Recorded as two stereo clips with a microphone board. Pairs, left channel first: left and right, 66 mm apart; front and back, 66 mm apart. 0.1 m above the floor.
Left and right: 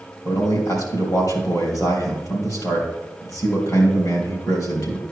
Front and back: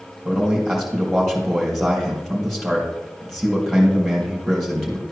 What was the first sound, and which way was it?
A man speaking, 85° left.